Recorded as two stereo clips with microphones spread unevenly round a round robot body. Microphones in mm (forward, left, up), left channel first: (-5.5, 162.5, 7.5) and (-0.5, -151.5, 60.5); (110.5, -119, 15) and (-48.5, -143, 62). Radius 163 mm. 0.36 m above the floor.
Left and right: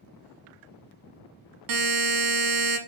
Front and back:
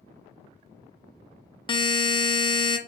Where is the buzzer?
65° right, 0.5 m.